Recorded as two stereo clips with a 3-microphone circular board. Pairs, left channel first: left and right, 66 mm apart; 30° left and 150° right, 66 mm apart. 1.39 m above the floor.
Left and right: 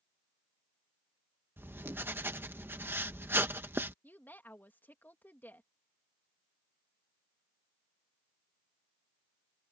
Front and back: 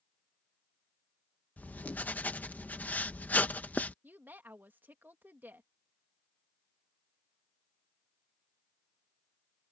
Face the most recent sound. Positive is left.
turn(degrees=150)